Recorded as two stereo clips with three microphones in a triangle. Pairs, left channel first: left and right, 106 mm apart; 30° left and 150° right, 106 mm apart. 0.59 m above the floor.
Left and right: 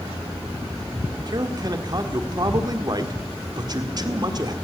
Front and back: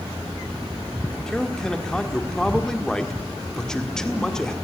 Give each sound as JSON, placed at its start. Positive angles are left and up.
{"t": 1.3, "sound": "a man speaking", "azimuth_deg": -55, "distance_m": 1.7}